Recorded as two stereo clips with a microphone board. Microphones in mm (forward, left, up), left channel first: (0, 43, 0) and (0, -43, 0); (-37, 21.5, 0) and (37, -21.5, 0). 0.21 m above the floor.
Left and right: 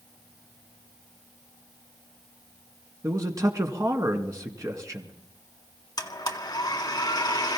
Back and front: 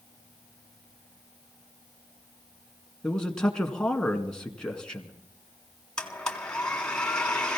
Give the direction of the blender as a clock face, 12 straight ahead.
10 o'clock.